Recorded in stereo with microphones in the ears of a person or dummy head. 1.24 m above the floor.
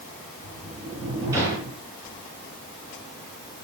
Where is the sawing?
No sawing in this recording.